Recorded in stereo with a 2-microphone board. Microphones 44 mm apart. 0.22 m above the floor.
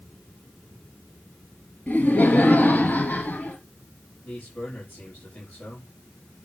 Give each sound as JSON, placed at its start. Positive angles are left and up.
{"t": 1.9, "sound": "laughter", "side_deg": 30, "distance_m": 2.5}
{"t": 4.2, "sound": "a man speaking", "side_deg": 45, "distance_m": 6.5}